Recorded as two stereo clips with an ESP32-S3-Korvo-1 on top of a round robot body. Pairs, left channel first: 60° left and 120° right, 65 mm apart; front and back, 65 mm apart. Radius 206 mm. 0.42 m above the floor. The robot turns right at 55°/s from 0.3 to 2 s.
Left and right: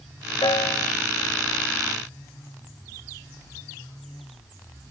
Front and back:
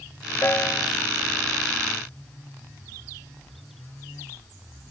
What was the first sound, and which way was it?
A piano, 55° left.